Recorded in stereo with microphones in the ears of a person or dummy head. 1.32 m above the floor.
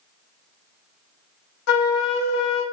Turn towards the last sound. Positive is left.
turn(degrees=70)  # may be behind; listen again after turning